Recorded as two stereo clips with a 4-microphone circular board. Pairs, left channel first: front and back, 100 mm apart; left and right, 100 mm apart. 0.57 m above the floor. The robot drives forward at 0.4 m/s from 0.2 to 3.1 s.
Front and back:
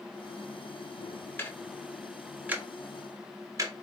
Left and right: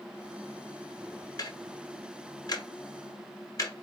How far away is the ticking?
About 0.7 m.